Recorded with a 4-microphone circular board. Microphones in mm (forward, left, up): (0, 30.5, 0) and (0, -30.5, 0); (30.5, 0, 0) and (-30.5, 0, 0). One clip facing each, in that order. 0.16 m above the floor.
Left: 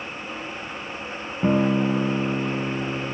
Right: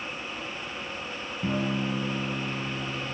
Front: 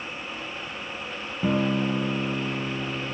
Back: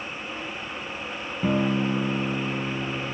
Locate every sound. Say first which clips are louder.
1.4 s a guitar: left 9 dB, even; 85° left, 0.7 m